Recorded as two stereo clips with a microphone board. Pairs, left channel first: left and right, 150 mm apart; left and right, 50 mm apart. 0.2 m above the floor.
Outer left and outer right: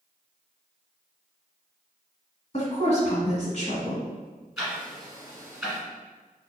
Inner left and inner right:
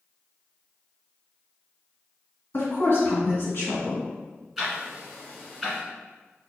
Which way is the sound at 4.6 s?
5° right (ahead or behind).